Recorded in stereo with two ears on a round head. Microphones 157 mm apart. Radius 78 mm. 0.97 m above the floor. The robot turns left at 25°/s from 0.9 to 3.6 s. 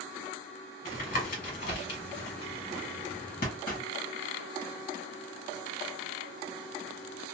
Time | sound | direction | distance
0.8 | tapping | 45° left (ahead or behind) | 1.3 m